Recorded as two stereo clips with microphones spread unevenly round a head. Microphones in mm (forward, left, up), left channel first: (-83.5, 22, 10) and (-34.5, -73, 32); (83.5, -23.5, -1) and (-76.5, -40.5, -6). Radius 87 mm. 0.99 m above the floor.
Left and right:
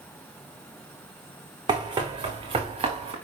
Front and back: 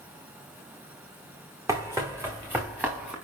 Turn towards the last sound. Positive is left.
turn(degrees=-95)